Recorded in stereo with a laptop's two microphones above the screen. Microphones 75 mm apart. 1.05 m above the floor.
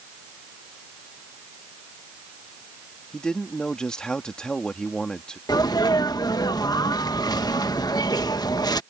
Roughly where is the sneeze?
Left.